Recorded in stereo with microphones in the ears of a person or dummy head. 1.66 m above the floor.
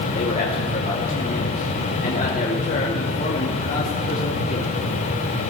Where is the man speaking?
45° left (ahead or behind), 2.5 m.